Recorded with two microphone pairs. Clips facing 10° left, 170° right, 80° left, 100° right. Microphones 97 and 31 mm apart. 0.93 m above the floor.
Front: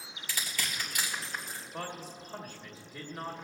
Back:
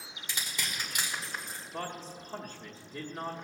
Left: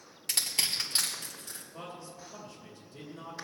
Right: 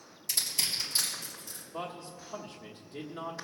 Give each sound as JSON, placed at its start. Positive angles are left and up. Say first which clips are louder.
{"t": 0.3, "sound": "crushing", "louder": "front 1 dB, left 1 dB", "azimuth_deg": 120, "distance_m": 2.5}
{"t": 1.7, "sound": "a man speaking", "louder": "back 2 dB, right 6 dB", "azimuth_deg": -130, "distance_m": 1.3}